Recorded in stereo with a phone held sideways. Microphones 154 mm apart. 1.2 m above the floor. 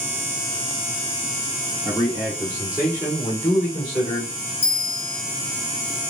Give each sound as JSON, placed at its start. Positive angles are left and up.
{"t": 1.9, "sound": "a man speaking", "side_deg": 15, "distance_m": 1.7}
{"t": 4.6, "sound": "a bell", "side_deg": 15, "distance_m": 1.9}